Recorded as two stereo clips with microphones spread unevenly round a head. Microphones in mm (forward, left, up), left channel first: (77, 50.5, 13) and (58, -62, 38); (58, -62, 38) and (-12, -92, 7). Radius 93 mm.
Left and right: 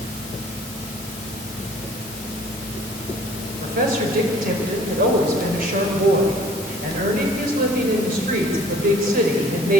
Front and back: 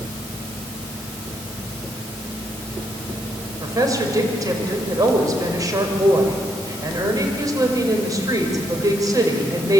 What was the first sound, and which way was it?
A woman speaking, 110° right.